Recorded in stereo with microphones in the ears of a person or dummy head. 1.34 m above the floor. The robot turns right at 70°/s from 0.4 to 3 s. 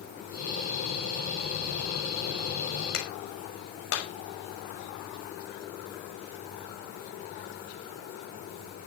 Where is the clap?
80° left, 6 m; by 4.1 s 75° left (ahead or behind), 6 m.